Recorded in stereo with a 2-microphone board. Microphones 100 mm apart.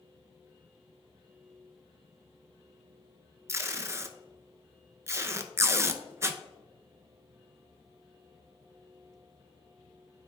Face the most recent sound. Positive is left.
turn(degrees=-25)  # may be behind; listen again after turning